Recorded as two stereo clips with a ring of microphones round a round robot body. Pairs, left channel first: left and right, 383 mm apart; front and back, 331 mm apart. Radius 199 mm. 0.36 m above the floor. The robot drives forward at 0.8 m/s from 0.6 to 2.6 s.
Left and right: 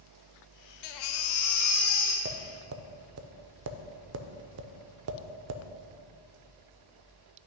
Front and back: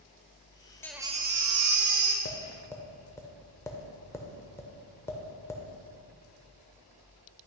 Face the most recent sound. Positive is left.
turn(degrees=-75)